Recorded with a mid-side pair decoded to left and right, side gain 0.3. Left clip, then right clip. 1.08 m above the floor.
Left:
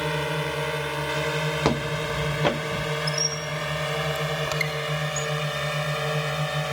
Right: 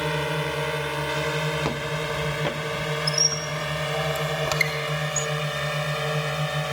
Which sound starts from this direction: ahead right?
A squeak, at 3.1 s.